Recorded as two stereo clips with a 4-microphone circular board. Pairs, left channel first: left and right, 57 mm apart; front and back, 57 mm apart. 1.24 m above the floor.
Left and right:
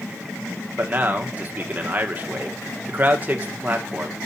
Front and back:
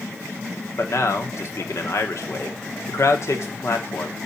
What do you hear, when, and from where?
0.8 s a man speaking: 30° right, 1.1 m